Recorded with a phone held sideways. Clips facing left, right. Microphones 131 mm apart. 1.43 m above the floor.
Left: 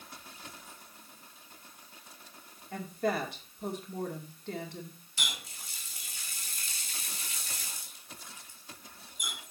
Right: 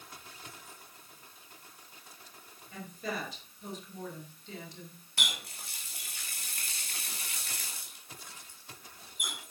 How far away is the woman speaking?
About 2.5 m.